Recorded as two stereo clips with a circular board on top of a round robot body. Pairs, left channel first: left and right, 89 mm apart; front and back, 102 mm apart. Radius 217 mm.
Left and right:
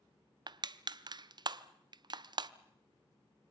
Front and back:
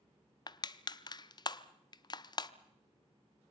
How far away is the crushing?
About 0.6 m.